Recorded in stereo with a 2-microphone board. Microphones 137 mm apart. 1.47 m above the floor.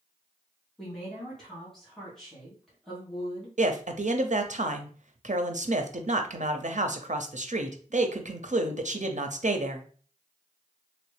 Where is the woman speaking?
5° left (ahead or behind), 1.6 m.